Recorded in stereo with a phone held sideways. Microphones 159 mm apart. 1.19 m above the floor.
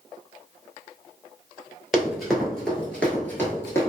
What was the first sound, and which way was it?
Running footsteps, 5° right (ahead or behind).